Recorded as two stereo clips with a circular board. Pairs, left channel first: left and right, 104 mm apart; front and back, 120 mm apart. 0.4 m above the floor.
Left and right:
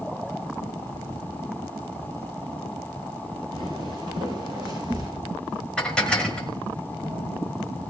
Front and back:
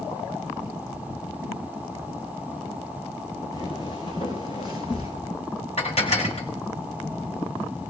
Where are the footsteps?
55° right, 6 m; by 5.1 s 40° right, 6 m.